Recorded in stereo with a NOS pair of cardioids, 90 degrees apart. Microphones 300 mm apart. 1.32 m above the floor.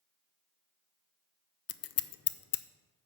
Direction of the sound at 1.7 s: 55° left.